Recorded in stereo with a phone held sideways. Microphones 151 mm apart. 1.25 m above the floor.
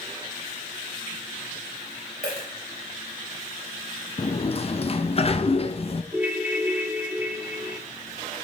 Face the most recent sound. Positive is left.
turn(degrees=-10)  # may be behind; listen again after turning